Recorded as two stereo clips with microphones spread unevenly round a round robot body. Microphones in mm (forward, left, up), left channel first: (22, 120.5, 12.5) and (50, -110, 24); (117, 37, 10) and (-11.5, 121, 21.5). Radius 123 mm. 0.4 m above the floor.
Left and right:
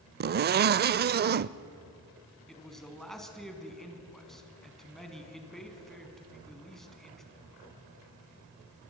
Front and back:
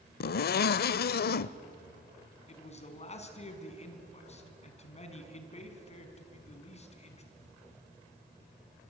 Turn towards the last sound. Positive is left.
turn(degrees=10)